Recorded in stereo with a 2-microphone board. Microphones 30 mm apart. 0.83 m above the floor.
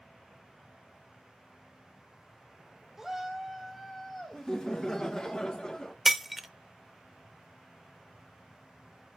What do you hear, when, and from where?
3.0 s a shout: 10° right (ahead or behind), 1.3 m; by 5.3 s 5° left (ahead or behind), 2.5 m
4.3 s laughter: 25° left (ahead or behind), 0.9 m
6.0 s breaking glass: 10° right (ahead or behind), 0.6 m